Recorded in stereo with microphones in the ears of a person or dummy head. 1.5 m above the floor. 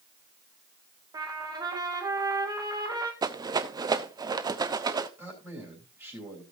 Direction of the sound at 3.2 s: 20° right (ahead or behind).